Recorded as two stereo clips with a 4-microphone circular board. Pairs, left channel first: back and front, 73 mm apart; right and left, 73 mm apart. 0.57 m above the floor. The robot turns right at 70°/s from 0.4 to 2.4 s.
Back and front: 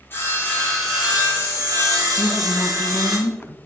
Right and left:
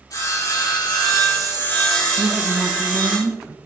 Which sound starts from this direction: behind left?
A woman speaking, at 2.2 s.